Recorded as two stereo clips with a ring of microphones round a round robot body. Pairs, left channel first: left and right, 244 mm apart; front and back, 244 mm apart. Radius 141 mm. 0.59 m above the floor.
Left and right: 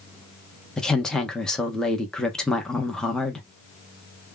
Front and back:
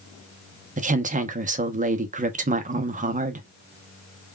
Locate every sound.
0.8 s a woman speaking: 175° left, 0.8 m